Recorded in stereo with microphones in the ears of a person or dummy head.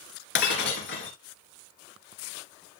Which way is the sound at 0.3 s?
60° left (ahead or behind).